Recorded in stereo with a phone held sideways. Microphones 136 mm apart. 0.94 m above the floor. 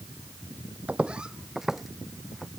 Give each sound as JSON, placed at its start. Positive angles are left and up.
{"t": 0.9, "sound": "footsteps", "side_deg": -10}